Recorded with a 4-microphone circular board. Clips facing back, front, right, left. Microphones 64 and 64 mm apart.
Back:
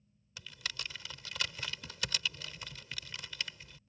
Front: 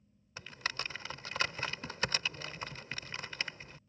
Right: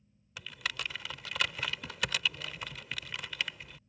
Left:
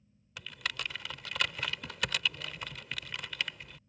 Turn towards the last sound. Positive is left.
turn(degrees=0)